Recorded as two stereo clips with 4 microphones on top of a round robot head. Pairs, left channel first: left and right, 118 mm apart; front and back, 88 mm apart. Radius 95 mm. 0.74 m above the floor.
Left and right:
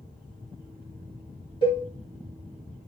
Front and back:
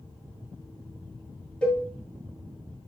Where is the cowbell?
75° left, 1.5 m.